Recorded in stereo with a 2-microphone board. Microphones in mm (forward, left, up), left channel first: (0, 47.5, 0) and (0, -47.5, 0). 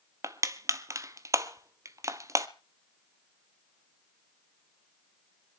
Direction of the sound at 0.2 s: 35° right (ahead or behind).